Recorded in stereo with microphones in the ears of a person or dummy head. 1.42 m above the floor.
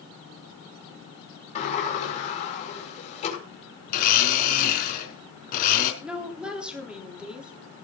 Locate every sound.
1.6 s a sliding door: 40° left (ahead or behind), 5.5 m
3.9 s a blender: 50° left (ahead or behind), 4 m
6.0 s a woman speaking: 5° right (ahead or behind), 3.5 m